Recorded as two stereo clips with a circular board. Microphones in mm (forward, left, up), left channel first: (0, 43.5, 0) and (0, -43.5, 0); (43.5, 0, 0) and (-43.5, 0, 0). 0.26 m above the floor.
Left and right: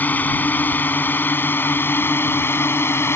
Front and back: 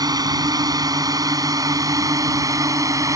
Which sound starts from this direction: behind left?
A drone, at 0.0 s.